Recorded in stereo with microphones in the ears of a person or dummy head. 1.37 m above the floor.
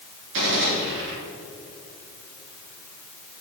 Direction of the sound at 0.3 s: 65° right (ahead or behind).